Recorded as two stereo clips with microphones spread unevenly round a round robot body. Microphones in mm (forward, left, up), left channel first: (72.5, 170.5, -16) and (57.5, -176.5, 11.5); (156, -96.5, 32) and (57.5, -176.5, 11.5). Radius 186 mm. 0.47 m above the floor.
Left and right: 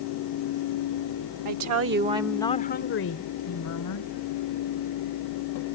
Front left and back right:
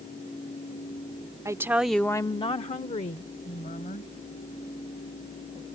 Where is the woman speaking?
90° right; by 4.1 s 60° left.